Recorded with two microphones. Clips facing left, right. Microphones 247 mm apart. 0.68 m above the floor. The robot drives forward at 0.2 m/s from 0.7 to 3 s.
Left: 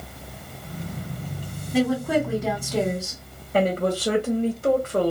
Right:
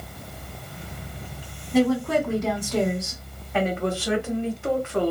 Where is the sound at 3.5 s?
40° left (ahead or behind), 0.9 m.